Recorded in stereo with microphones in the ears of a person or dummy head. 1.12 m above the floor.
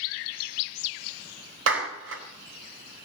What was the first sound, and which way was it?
A clap, 75° right (ahead or behind).